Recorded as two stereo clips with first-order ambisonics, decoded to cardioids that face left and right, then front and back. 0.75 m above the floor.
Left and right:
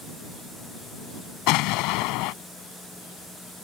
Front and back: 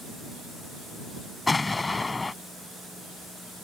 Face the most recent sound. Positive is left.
turn(degrees=80)